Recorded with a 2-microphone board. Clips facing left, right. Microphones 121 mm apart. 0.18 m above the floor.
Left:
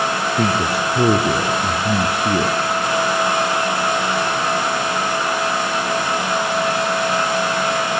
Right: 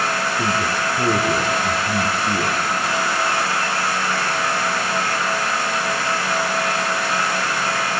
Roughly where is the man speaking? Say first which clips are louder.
Left 3 dB; left.